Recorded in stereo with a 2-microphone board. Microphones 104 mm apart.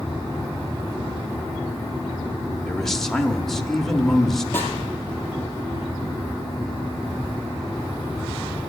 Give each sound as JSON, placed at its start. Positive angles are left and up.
{"t": 2.7, "sound": "a man speaking", "side_deg": 5, "distance_m": 0.9}
{"t": 4.5, "sound": "a snare drum", "side_deg": 20, "distance_m": 2.5}